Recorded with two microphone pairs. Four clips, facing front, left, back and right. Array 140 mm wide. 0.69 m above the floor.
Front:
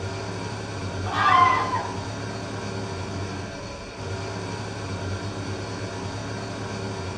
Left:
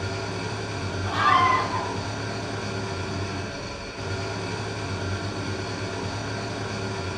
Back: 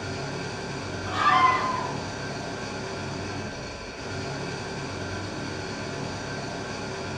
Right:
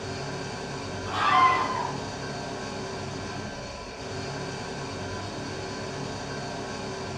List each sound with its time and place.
0.0 s an engine running: 55° left, 2.5 m
1.1 s a scream: 25° left, 1.9 m